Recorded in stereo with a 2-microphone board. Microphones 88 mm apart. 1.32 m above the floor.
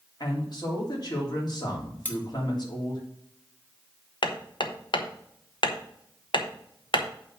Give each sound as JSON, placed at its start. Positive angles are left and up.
{"t": 0.2, "sound": "a man speaking", "side_deg": 50, "distance_m": 3.0}
{"t": 2.0, "sound": "cutlery clinking", "side_deg": 20, "distance_m": 1.4}
{"t": 4.2, "sound": "hammering", "side_deg": 65, "distance_m": 1.0}